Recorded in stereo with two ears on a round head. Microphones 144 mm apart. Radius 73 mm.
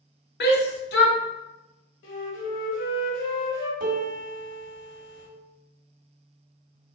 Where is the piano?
60° right (ahead or behind), 1.5 m.